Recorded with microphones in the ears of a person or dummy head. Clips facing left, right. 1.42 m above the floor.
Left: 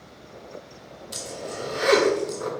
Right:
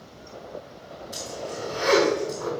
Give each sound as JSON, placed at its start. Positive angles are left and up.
{"t": 1.1, "sound": "a zipper", "side_deg": 45, "distance_m": 1.1}